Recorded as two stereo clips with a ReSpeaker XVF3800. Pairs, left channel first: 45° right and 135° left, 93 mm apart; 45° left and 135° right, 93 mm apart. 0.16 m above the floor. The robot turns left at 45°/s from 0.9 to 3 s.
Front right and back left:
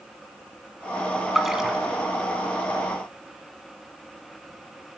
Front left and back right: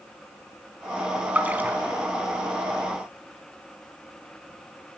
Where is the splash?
145° right, 1.0 m; by 1.8 s 165° right, 1.0 m.